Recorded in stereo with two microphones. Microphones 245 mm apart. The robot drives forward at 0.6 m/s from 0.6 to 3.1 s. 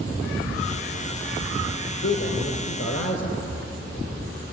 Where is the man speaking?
50° left (ahead or behind), 2.5 m; by 3.6 s 45° left (ahead or behind), 2.5 m.